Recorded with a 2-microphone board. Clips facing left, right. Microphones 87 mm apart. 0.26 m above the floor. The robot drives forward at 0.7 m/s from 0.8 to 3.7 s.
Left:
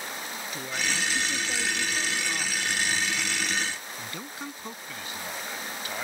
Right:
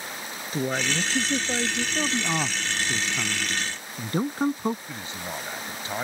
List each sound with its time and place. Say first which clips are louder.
0.5 s a woman speaking: right 7 dB; 40° right (ahead or behind); by 1.9 s 35° right (ahead or behind)
1.9 s a man speaking: right 5 dB; 55° right (ahead or behind); by 4.8 s 45° right (ahead or behind)
4.9 s a man speaking: right 2 dB; 30° right (ahead or behind)